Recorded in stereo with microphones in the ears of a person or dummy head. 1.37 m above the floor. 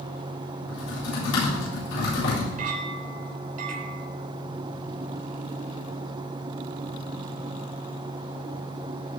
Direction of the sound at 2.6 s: 40° right (ahead or behind).